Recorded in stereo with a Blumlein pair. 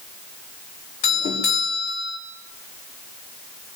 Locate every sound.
1.0 s a doorbell: 50° left, 5 m